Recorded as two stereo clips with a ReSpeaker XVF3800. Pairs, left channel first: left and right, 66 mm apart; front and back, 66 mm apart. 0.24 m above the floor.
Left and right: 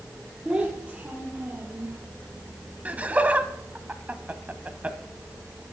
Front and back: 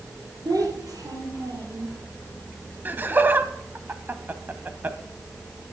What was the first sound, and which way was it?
A child speaking, 165° right.